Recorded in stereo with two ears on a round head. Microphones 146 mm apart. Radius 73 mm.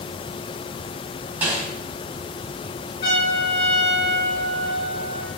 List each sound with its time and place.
1.4 s a snare drum: 10° right (ahead or behind), 5 m
3.0 s a trumpet: 30° left (ahead or behind), 6.5 m